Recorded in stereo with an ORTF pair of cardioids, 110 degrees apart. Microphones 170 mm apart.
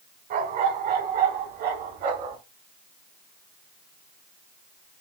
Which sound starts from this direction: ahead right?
A dog barking, at 0.3 s.